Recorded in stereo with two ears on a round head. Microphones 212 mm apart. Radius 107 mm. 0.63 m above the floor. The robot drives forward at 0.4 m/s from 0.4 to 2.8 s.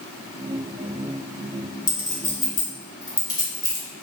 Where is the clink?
20° left (ahead or behind), 1.6 m; by 3.9 s 15° left (ahead or behind), 1.9 m.